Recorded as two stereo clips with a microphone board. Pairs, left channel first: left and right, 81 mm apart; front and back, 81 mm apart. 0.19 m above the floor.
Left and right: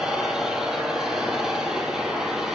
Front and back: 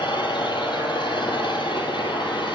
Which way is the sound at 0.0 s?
5° right.